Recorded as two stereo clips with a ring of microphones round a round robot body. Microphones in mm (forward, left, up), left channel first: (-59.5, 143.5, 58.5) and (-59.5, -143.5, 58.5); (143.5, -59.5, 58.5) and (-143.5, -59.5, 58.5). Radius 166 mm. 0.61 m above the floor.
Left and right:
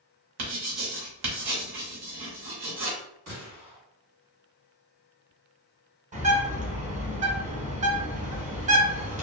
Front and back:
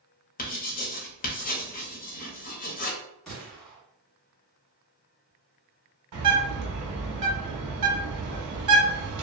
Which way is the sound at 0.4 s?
65° right.